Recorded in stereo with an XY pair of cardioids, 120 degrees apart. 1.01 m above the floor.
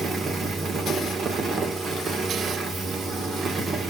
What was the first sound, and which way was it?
A fan, 40° right.